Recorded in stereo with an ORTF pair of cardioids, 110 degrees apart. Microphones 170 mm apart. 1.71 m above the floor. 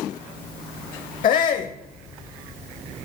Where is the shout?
55° left, 0.8 m.